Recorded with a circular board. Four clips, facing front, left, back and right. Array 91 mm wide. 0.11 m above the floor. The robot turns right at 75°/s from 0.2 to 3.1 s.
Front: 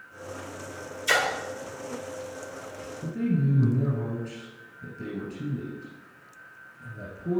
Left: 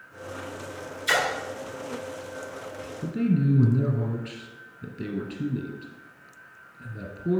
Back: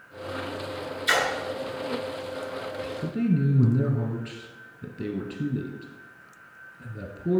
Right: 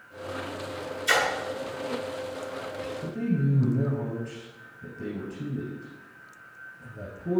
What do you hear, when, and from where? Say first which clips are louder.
1.1 s a splash: even, even; 165° left, 1.5 m; by 1.3 s straight behind, 1.5 m
3.0 s a man speaking: left 4 dB, back 1 dB; 130° left, 1.3 m; by 7.4 s 135° left, 1.3 m